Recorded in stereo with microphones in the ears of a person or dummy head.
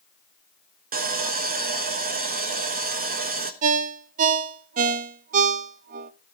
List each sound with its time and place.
0.9 s sawing: 45° right (ahead or behind), 1.1 m
3.6 s a ringtone: 40° right (ahead or behind), 0.7 m